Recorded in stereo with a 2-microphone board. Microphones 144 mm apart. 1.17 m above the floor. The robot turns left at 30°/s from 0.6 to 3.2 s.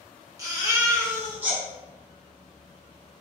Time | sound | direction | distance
0.4 | a baby crying | 130° right | 0.9 m